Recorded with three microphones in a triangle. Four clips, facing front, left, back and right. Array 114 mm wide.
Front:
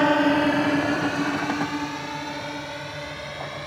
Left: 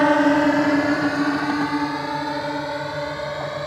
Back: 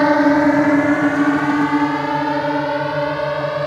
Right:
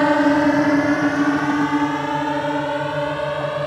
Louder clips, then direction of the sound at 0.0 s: Right 1 dB, back 6 dB; 170° left.